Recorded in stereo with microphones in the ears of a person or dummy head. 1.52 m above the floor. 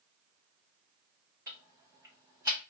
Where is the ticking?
20° right (ahead or behind), 0.7 m.